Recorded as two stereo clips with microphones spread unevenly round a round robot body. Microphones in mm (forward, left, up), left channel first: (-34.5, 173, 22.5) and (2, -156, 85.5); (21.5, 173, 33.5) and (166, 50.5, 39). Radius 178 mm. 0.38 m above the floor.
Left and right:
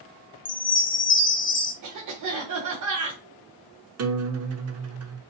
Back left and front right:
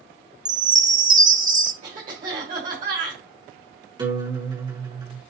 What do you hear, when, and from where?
0.5 s a chime: 30° left, 0.9 m
1.8 s a cough: 65° right, 1.8 m
4.0 s a guitar: 95° right, 1.0 m